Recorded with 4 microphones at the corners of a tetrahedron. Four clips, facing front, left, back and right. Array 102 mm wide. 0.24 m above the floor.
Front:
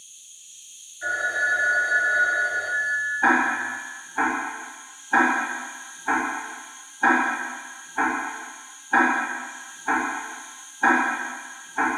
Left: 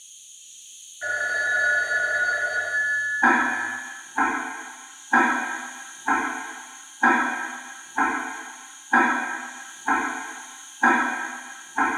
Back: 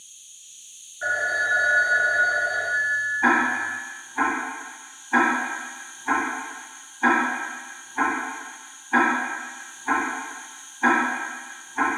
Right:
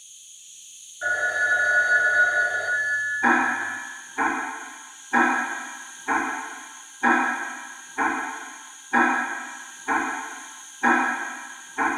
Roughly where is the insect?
Behind.